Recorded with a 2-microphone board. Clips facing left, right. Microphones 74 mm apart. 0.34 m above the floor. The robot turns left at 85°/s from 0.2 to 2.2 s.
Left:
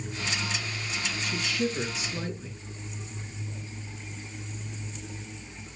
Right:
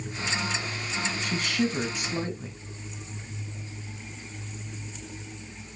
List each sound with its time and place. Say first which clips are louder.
1.2 s a woman speaking: right 2 dB; 50° right, 3 m; by 2.5 s 135° right, 3 m